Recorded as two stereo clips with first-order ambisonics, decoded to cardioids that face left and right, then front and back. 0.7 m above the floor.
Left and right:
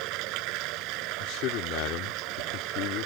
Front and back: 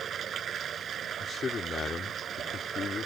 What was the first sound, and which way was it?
Running water, 115° right.